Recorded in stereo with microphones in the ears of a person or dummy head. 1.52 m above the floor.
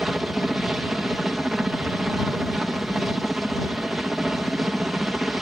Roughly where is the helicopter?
Centre.